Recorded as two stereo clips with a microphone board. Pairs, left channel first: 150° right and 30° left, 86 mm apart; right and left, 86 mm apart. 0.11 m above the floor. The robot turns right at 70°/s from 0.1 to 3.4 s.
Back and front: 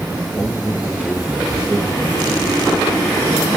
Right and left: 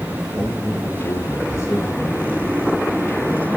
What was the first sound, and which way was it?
A man speaking, 140° right.